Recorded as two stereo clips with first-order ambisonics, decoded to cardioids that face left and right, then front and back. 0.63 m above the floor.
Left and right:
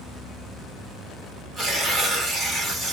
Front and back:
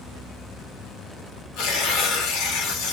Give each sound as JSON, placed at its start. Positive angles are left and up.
{"t": 1.6, "sound": "tearing paper", "azimuth_deg": -15, "distance_m": 2.5}